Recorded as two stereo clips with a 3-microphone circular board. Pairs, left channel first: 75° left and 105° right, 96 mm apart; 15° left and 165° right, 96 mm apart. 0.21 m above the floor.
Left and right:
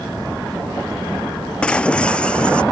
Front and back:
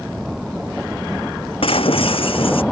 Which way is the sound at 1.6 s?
5° right.